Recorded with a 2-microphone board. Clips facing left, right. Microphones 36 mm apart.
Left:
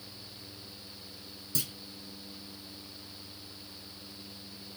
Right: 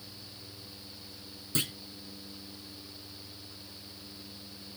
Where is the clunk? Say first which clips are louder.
Right 5 dB; 50° right (ahead or behind), 0.6 m.